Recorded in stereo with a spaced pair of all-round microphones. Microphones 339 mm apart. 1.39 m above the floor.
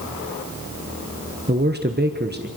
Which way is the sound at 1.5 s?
30° right (ahead or behind).